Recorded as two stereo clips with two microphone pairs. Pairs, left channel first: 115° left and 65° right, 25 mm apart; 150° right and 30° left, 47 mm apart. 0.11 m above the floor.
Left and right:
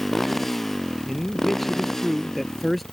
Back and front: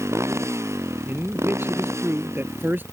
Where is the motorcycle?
30° left; by 2.9 s 40° left.